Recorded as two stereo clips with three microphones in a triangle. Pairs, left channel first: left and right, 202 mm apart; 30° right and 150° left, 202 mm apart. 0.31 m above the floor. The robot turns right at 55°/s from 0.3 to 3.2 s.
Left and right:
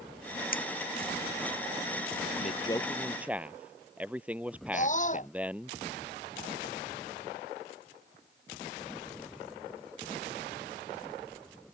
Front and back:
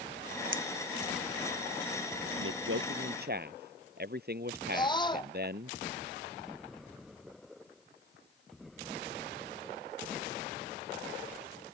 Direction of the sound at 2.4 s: 140° left.